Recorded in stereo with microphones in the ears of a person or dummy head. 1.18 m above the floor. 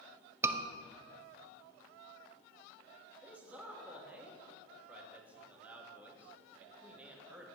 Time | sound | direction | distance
0.4 | a scream | 10° right (ahead or behind) | 0.7 m
3.2 | a man speaking | 10° right (ahead or behind) | 1.6 m